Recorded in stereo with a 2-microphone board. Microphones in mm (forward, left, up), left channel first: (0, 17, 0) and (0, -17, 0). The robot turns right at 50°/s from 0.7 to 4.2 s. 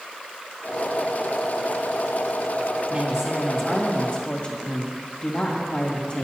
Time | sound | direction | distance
2.9 | a woman speaking | 30° right | 2 m